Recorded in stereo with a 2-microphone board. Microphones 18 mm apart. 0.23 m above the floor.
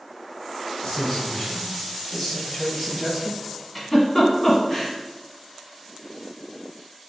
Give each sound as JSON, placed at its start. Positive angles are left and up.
{"t": 0.8, "sound": "a man speaking", "side_deg": 45, "distance_m": 1.9}
{"t": 3.8, "sound": "a giggle", "side_deg": 20, "distance_m": 1.4}